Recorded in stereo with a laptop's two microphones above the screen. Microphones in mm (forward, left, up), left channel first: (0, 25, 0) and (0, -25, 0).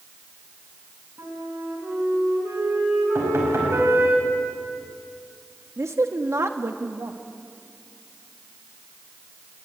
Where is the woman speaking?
70° right (ahead or behind), 1.4 m.